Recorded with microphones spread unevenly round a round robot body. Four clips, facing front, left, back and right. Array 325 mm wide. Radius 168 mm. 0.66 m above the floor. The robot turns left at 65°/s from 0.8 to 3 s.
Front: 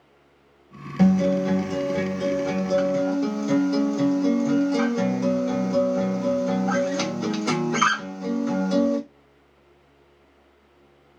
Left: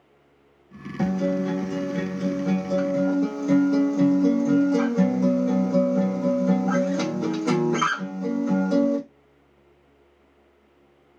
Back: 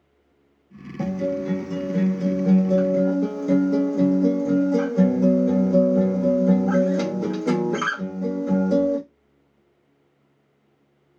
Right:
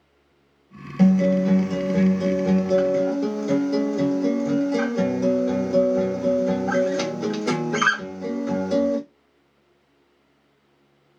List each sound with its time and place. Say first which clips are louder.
1.0 s a guitar: right 6 dB, front 5 dB; 35° right, 1.3 m; by 9.0 s 170° right, 1.3 m